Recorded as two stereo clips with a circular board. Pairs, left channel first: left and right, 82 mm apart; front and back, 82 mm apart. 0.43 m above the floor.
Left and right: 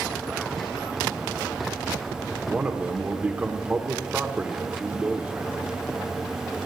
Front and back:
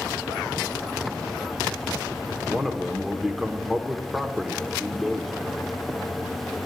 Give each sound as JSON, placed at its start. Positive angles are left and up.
{"t": 2.4, "sound": "a man speaking", "azimuth_deg": -85, "distance_m": 0.8}